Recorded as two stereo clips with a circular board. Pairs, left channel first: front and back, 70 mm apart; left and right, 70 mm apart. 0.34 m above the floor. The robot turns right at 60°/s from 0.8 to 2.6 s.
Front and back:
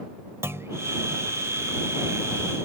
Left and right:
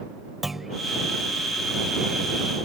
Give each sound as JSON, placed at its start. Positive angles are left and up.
{"t": 0.4, "sound": "a clunk", "azimuth_deg": -175}